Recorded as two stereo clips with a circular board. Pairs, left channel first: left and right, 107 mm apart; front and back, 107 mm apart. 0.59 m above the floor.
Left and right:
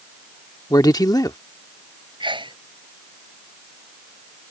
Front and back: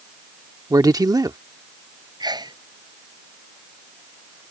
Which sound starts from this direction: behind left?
A man speaking, at 0.7 s.